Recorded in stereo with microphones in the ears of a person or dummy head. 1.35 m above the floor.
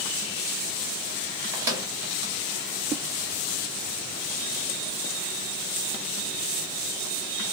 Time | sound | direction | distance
1.5 | a microwave | 10° right (ahead or behind) | 0.8 m